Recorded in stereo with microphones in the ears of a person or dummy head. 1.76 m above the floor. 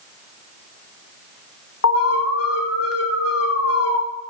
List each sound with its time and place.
1.8 s an alarm: 70° left (ahead or behind), 1.8 m